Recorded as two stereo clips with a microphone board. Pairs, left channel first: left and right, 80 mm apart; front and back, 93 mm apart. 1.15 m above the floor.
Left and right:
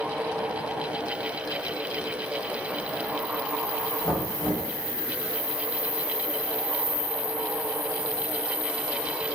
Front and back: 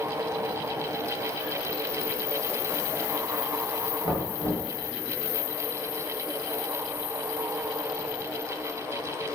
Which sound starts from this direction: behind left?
Knocking, at 4.0 s.